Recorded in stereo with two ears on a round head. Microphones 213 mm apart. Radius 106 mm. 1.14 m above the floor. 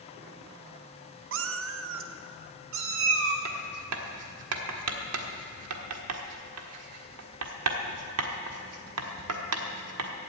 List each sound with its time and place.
1.3 s a cat meowing: 55° right (ahead or behind), 0.7 m; by 3.4 s 60° right (ahead or behind), 1.7 m
3.5 s writing: 70° right (ahead or behind), 1.4 m